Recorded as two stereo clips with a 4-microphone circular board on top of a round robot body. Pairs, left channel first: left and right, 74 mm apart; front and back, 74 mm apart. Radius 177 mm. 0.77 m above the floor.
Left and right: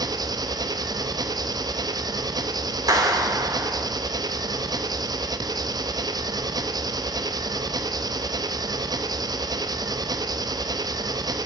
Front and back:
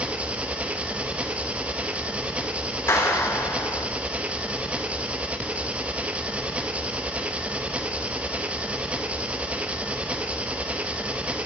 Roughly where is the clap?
Ahead right.